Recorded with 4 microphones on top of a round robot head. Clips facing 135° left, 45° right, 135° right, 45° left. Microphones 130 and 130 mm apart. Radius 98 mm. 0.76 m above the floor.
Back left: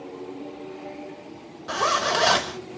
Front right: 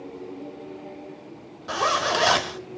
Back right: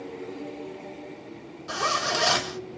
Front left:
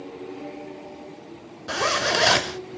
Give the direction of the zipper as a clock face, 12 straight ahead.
11 o'clock.